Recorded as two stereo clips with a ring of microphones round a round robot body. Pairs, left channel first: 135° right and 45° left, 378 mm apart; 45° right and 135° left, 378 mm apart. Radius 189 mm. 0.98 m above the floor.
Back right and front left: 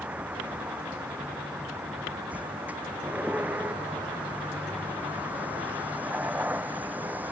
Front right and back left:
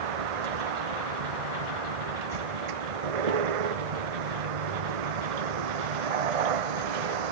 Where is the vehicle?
130° left.